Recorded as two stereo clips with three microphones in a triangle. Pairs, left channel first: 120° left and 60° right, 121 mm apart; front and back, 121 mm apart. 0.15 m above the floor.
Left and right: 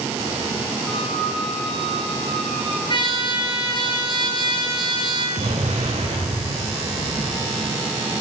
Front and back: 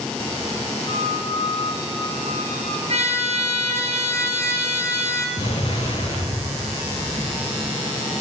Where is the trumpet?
165° left, 2.5 m.